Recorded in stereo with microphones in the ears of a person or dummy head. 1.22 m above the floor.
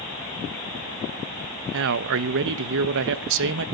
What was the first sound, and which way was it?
A man speaking, 65° right (ahead or behind).